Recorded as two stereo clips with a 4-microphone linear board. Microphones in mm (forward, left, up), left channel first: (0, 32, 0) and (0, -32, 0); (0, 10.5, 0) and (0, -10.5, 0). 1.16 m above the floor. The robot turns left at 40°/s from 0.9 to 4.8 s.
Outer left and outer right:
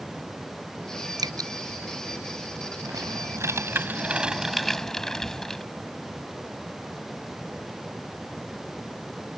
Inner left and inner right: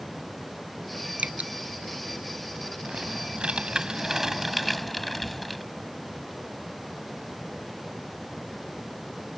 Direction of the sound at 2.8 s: 110° right.